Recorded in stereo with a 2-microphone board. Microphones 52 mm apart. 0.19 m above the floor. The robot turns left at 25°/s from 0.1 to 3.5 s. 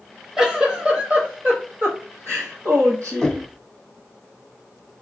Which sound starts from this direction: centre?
Knocking, at 3.2 s.